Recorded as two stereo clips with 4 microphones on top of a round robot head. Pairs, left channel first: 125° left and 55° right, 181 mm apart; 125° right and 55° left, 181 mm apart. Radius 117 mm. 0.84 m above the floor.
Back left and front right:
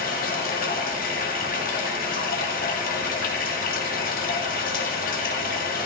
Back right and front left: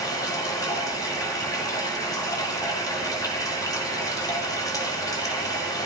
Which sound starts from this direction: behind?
Running water, at 0.0 s.